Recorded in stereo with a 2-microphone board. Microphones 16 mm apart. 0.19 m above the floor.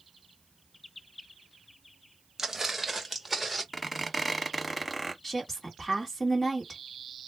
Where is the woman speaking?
20° left (ahead or behind), 1.6 m.